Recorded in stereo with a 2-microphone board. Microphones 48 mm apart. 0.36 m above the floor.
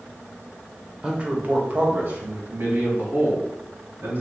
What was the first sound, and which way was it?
A man speaking, 20° right (ahead or behind).